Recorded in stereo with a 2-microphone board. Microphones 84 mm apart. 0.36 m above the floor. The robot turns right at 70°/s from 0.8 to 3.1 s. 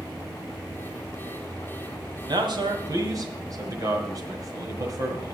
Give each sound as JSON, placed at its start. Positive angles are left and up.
{"t": 2.3, "sound": "a man speaking", "side_deg": -60, "distance_m": 1.8}